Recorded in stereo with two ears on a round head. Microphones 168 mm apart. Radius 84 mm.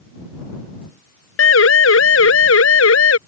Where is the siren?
80° left; by 3.2 s 85° left.